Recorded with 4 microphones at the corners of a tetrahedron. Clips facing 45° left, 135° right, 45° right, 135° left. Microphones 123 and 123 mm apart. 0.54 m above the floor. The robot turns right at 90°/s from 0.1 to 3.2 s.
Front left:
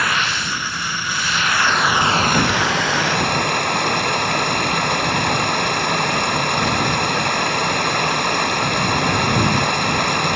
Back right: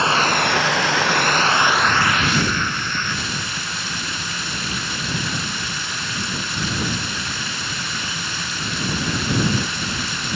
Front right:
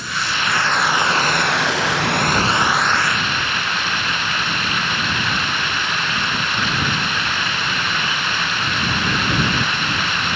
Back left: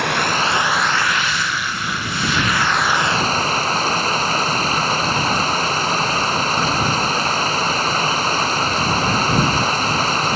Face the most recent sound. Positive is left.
turn(degrees=80)